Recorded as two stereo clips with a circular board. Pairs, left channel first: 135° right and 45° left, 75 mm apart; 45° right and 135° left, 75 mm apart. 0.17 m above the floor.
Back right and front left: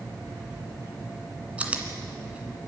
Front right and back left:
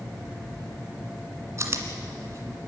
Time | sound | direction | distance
1.6 | chewing | 110° left | 2 m